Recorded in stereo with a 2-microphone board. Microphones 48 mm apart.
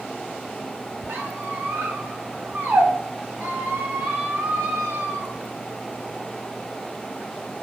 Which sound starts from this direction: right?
A squeak, at 1.1 s.